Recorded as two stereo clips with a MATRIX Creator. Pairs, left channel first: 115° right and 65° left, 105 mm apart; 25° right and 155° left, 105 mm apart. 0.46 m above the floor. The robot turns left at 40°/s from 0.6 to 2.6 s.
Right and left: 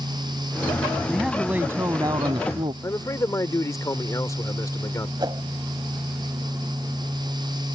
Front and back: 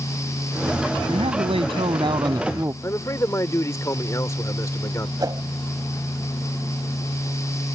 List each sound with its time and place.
1.1 s a man speaking: 160° left; by 2.7 s 100° left
2.8 s a man speaking: 70° right
5.2 s a whoosh: 110° left